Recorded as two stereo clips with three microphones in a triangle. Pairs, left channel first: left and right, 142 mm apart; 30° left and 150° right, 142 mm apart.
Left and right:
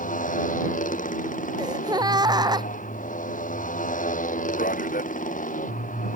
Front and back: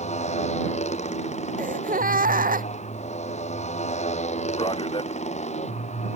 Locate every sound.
0.0 s a motorcycle: 70° left
1.6 s a gasp: 150° right
4.6 s a man speaking: 85° left